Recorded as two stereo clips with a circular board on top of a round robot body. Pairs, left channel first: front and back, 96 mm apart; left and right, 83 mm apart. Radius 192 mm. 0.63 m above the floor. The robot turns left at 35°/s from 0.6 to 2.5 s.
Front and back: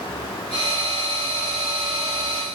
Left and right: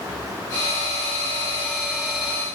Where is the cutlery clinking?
I don't hear cutlery clinking.